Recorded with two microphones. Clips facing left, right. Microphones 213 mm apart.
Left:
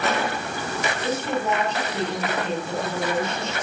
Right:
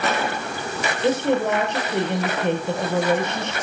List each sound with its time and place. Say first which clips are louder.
1.0 s a woman speaking: right 7 dB; 65° right (ahead or behind), 6 m